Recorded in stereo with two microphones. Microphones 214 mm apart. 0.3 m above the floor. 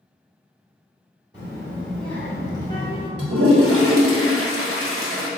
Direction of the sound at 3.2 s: 80° right.